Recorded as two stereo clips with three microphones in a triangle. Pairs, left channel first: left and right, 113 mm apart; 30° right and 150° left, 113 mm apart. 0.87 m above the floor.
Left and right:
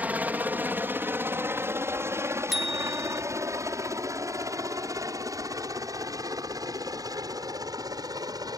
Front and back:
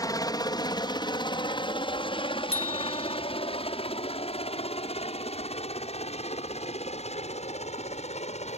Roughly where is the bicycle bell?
Ahead.